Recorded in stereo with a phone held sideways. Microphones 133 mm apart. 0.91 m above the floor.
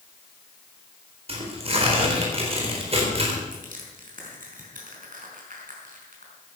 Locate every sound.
1.3 s tearing paper: 45° right (ahead or behind), 4 m
3.5 s crushing: 75° right (ahead or behind), 5 m